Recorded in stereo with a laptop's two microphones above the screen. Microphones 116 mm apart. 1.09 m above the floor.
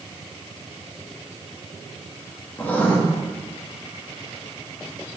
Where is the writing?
15° left (ahead or behind), 1.4 m.